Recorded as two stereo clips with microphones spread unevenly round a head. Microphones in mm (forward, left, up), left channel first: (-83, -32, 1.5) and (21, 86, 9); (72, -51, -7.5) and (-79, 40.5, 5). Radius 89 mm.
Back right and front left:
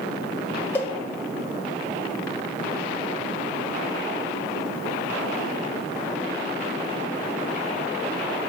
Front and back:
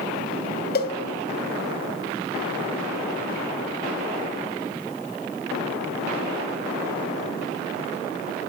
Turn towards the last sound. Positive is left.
turn(degrees=-55)